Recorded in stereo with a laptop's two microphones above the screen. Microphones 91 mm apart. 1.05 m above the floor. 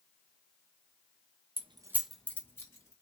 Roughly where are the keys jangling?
Right.